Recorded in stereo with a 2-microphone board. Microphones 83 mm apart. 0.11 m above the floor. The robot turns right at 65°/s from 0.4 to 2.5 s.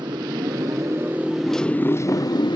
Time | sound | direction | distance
0.0 | a motorcycle | 70° right | ?